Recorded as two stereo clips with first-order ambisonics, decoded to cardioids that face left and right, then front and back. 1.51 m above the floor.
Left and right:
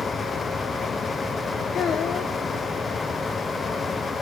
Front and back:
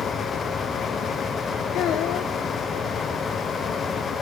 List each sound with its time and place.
1.7 s a child speaking: 35° left, 0.8 m